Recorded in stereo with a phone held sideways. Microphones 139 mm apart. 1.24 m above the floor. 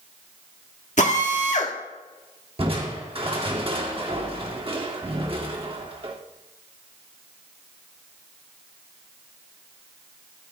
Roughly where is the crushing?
Right.